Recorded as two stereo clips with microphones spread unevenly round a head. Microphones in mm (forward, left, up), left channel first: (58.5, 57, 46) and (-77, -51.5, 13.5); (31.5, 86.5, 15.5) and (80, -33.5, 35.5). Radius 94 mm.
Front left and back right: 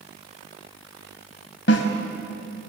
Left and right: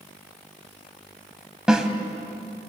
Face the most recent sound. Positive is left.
turn(degrees=15)